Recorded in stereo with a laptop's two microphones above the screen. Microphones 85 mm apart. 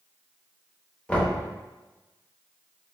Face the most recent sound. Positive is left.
turn(degrees=15)  # may be behind; listen again after turning